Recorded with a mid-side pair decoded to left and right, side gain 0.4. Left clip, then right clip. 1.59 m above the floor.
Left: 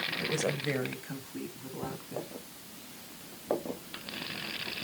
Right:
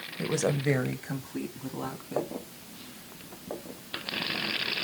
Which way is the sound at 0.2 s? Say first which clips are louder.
Right 3 dB; 40° right.